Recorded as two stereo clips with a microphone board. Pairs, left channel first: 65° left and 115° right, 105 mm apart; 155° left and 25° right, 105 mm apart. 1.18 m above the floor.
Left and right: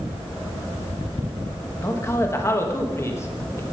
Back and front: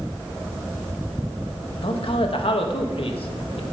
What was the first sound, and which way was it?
A man speaking, 130° left.